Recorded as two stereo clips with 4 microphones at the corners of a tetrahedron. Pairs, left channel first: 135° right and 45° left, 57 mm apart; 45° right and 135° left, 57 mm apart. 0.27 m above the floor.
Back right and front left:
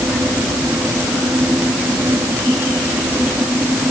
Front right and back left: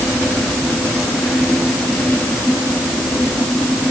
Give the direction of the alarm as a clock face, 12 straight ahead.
I don't hear an alarm.